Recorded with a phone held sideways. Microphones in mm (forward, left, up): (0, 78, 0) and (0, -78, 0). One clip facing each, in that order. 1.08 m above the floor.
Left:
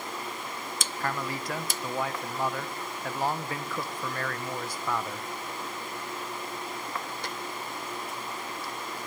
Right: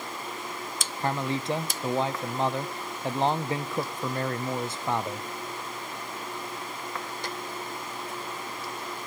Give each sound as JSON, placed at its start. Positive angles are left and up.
{"t": 1.0, "sound": "a man speaking", "side_deg": -25, "distance_m": 0.8}